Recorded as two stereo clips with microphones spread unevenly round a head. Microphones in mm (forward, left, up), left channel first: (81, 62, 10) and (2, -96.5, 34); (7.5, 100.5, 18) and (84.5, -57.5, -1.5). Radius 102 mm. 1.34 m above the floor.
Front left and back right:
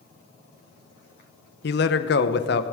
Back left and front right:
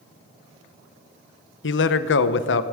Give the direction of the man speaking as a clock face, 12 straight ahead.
9 o'clock.